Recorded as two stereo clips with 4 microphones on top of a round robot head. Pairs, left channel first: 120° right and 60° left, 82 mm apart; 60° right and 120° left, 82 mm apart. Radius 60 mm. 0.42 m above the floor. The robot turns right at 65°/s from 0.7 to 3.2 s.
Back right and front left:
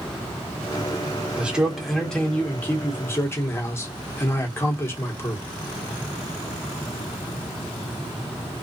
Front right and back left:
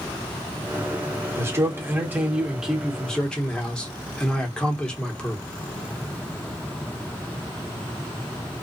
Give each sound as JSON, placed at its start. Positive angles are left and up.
{"t": 1.4, "sound": "a man speaking", "azimuth_deg": 115, "distance_m": 1.1}